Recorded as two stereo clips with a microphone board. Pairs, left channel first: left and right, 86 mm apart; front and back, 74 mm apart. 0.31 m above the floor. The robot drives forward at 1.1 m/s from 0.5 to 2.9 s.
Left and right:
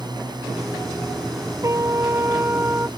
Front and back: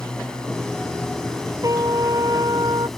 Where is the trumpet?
140° right; by 2.9 s 155° right.